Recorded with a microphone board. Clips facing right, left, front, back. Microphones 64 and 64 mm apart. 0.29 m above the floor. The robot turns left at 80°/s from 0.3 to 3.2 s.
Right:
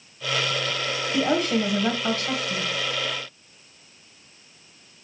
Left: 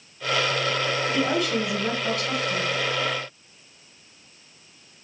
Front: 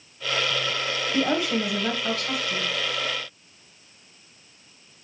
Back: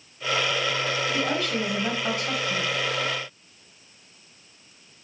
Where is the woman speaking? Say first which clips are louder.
Right 4 dB, front 2 dB; 45° right, 1.4 m; by 2.7 s 170° right, 1.4 m.